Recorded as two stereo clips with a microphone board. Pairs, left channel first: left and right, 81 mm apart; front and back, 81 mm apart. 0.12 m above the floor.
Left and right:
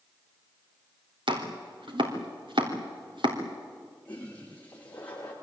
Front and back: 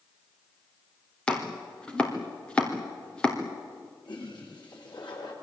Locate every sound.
1.3 s chopping: 80° right, 4 m
4.0 s a toilet flushing: 20° left, 9 m